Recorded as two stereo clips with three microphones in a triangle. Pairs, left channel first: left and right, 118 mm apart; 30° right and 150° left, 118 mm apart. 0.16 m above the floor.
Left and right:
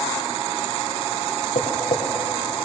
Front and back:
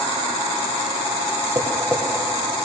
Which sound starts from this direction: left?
Tapping, at 1.6 s.